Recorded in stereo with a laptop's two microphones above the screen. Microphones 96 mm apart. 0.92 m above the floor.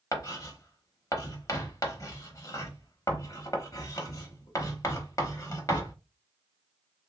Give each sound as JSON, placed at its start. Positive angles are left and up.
{"t": 0.1, "sound": "writing", "side_deg": 35, "distance_m": 0.8}